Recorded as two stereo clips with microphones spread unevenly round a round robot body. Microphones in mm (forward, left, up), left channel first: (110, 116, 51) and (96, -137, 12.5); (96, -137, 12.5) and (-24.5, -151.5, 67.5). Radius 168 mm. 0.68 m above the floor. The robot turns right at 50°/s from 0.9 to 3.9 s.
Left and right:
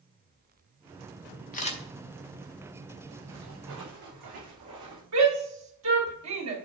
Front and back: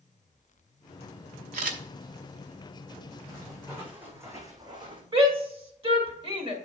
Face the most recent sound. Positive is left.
turn(degrees=-120)